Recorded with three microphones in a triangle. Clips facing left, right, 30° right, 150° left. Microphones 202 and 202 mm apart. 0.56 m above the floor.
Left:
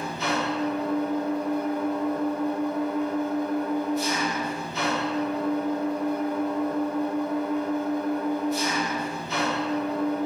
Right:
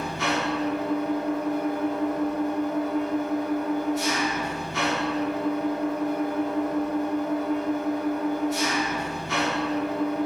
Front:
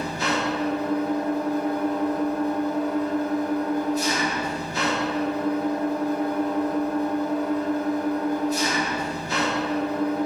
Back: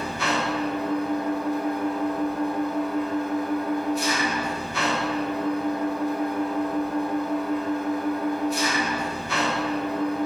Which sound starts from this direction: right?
An engine running, at 0.0 s.